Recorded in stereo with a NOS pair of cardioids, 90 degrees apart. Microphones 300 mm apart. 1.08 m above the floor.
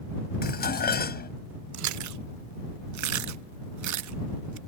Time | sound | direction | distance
0.4 | dishes clattering | 30° left | ?
1.7 | chewing | 70° right | ?